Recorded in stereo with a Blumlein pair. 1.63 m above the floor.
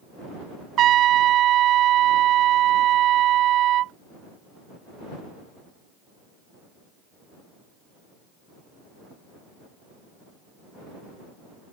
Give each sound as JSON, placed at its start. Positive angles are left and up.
{"t": 0.8, "sound": "a trumpet", "azimuth_deg": -30}